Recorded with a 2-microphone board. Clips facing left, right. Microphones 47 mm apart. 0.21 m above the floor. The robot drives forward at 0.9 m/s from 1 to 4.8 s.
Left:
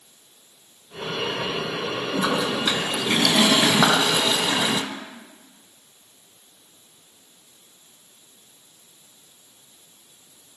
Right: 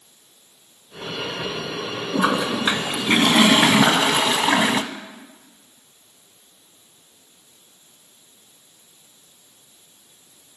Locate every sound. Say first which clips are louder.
2.1 s a toilet flushing: right 4 dB; 25° right (ahead or behind), 3 m; by 4.8 s 35° right (ahead or behind), 1.8 m
3.8 s a clap: right 1 dB; 15° left (ahead or behind), 8 m